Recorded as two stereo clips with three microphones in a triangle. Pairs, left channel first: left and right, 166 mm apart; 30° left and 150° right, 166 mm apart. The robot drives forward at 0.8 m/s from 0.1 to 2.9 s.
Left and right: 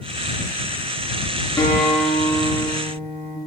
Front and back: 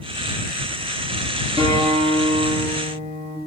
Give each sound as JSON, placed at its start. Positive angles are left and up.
{"t": 1.6, "sound": "a guitar", "azimuth_deg": 160, "distance_m": 9.0}